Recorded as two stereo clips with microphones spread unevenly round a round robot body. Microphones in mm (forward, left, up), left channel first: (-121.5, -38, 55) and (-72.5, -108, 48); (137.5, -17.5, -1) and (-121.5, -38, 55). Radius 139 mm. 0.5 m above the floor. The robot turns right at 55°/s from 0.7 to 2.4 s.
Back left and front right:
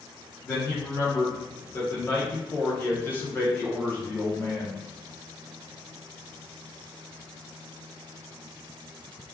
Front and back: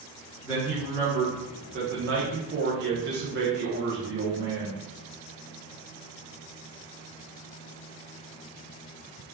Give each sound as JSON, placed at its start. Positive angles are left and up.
{"t": 0.4, "sound": "a man speaking", "azimuth_deg": 80, "distance_m": 0.8}